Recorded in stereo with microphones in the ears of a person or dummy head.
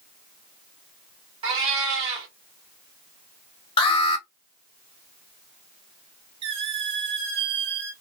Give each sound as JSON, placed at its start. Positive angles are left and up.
{"t": 1.4, "sound": "a cat meowing", "side_deg": -35, "distance_m": 0.9}
{"t": 3.8, "sound": "an alarm", "side_deg": 30, "distance_m": 0.9}
{"t": 6.4, "sound": "a squeak", "side_deg": -30, "distance_m": 0.8}